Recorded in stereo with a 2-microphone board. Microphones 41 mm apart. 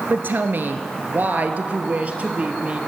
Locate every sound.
0.1 s a woman speaking: 55° right (ahead or behind), 2.0 m; by 2.8 s 30° right (ahead or behind), 3 m